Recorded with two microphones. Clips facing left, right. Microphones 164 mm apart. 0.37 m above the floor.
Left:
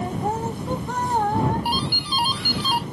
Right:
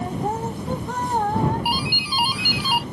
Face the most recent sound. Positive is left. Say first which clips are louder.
# even
turn(degrees=-10)  # may be behind; listen again after turning